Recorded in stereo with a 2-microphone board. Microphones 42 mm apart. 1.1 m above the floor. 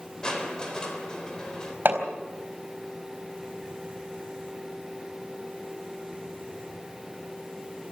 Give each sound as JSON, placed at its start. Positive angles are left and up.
{"t": 0.2, "sound": "crushing", "side_deg": 20, "distance_m": 3.5}
{"t": 1.9, "sound": "hammering", "side_deg": -55, "distance_m": 4.0}